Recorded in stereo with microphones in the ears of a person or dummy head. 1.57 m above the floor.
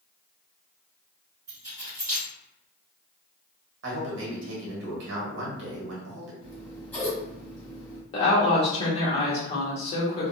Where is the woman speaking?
30° left (ahead or behind), 1.0 m.